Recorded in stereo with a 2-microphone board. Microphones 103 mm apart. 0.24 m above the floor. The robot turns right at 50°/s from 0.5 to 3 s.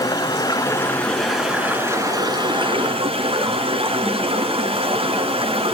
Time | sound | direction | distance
0.0 | running water | 140° left | 2.5 m